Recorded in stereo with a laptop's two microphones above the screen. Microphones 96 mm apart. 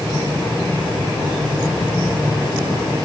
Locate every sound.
Only background noise.